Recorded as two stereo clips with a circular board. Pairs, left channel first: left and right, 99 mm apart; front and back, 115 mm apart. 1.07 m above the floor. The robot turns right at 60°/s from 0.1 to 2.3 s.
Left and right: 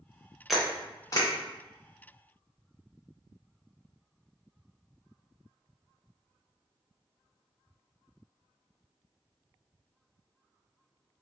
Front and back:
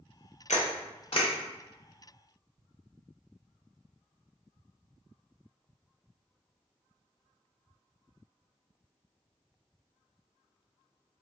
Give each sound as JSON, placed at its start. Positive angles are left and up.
{"t": 0.5, "sound": "a camera shutter", "azimuth_deg": -5, "distance_m": 0.8}